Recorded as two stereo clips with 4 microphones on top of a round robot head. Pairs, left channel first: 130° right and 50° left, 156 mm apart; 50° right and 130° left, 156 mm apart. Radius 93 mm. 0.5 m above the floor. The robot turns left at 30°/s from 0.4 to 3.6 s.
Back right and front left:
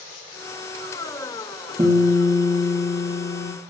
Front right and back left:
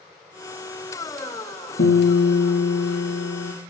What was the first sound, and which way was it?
A guitar, 20° right.